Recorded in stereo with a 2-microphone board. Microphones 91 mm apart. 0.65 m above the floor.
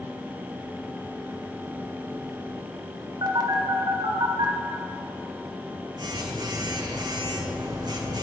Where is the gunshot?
I don't hear a gunshot.